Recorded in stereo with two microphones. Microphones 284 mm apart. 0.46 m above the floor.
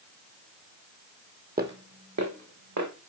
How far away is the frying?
No frying in this recording.